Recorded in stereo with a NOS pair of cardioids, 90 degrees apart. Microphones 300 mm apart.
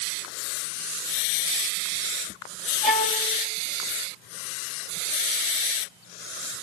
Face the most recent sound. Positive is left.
turn(degrees=0)